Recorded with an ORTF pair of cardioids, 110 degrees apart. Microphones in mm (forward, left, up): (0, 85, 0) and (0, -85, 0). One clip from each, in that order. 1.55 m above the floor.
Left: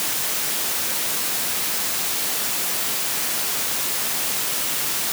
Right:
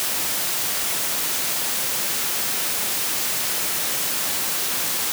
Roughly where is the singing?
I don't hear singing.